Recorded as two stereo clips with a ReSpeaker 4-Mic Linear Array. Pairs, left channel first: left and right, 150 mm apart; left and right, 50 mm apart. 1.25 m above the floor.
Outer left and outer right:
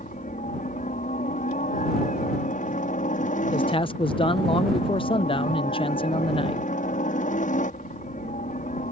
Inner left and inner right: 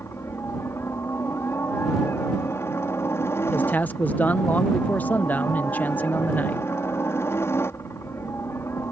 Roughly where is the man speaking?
Left.